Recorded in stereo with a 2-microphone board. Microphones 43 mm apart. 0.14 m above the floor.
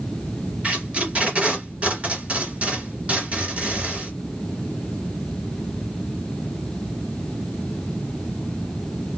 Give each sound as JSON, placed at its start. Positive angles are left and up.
{"t": 0.6, "sound": "tape being pulled", "side_deg": -30, "distance_m": 1.9}